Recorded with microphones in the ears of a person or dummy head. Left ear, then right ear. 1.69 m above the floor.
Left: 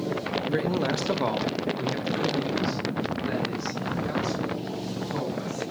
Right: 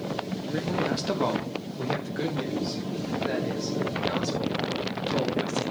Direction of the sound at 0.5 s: 30° left (ahead or behind).